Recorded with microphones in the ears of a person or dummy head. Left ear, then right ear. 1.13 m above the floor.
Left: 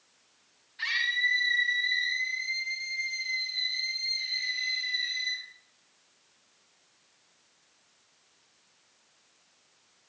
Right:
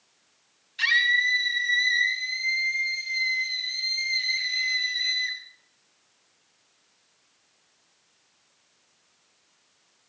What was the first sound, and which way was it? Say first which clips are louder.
A scream: right 6 dB; 75° right (ahead or behind).